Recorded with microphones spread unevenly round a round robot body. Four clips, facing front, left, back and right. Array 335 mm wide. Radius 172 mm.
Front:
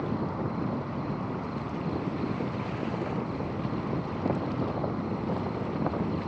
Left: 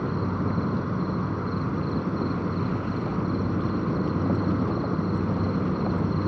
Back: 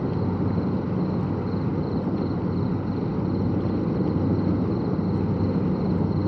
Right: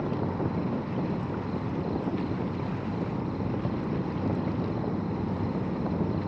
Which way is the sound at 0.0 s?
160° left.